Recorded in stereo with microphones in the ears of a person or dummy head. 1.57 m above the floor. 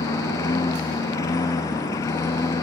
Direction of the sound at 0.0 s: 15° left (ahead or behind).